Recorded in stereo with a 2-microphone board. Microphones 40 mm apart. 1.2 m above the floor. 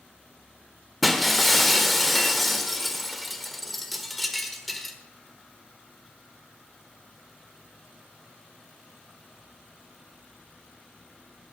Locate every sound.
1.0 s breaking glass: centre (ahead or behind), 1.2 m